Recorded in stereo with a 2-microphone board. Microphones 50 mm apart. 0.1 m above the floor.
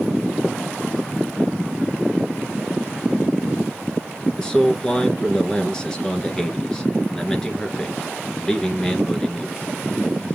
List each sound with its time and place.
4.4 s a man speaking: 15° left (ahead or behind), 1.3 m